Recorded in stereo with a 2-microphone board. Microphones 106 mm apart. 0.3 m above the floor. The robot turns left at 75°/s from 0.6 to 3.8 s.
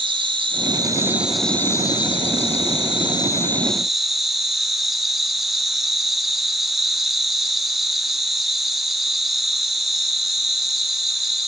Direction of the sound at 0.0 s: 120° right.